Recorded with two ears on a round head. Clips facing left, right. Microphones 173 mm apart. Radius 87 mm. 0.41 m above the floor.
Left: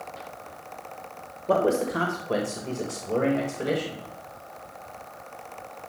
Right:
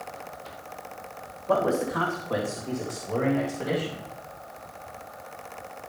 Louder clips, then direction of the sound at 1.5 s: Left 2 dB; 40° left (ahead or behind).